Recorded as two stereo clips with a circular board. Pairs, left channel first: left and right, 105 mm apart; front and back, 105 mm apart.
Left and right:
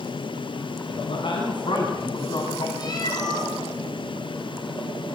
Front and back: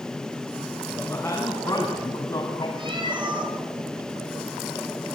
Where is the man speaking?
65° left, 4.5 m; by 2.7 s 40° left, 4 m.